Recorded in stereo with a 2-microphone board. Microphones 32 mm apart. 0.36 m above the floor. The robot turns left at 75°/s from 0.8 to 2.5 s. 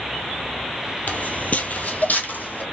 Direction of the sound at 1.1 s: 60° left (ahead or behind).